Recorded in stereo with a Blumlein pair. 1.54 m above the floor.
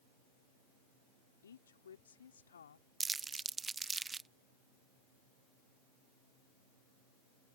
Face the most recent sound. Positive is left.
turn(degrees=-15)